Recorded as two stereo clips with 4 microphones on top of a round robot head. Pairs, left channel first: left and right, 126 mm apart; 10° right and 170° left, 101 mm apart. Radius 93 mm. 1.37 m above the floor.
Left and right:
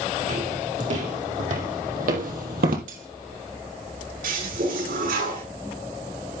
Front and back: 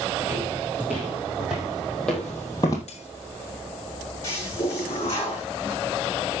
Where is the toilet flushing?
80° right, 7 m.